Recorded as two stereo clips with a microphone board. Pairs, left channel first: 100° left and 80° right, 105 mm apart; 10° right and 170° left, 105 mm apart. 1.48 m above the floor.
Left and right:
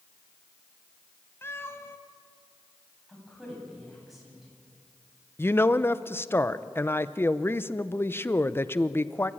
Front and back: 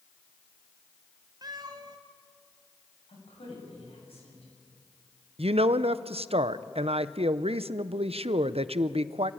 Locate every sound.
1.4 s a cat meowing: 155° left, 1.7 m
3.1 s a woman speaking: 10° left, 8.5 m
5.4 s a woman speaking: 165° left, 0.7 m